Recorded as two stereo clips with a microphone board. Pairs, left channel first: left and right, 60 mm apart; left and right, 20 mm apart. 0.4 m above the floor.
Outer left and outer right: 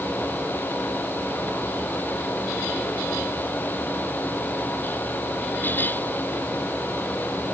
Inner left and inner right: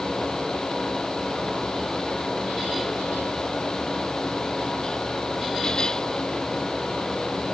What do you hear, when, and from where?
Only background noise.